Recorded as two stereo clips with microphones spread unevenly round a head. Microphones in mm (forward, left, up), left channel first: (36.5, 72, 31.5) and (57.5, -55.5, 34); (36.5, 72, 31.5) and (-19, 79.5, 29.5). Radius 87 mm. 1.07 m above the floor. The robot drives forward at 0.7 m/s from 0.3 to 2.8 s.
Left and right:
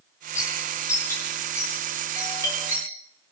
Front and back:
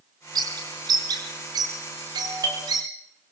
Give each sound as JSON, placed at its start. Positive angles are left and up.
{"t": 0.3, "sound": "a bird", "azimuth_deg": 175, "distance_m": 4.0}
{"t": 2.1, "sound": "a doorbell", "azimuth_deg": 170, "distance_m": 4.0}